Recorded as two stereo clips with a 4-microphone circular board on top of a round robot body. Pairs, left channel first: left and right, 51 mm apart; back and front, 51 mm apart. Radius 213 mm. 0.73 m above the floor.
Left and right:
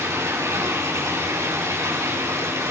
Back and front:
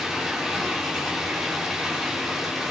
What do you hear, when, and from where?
0.0 s running water: 85° right, 4 m